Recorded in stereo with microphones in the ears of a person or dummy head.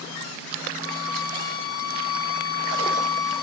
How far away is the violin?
About 1.0 m.